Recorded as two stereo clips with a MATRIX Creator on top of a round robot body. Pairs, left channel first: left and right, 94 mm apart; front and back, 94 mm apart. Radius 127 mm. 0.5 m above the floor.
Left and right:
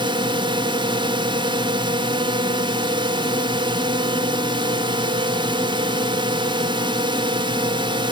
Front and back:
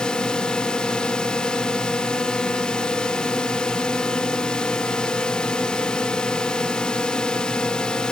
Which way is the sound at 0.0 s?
80° right.